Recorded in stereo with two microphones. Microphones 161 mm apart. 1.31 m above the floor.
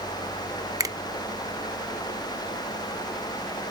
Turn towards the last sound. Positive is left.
turn(degrees=-20)  # may be behind; listen again after turning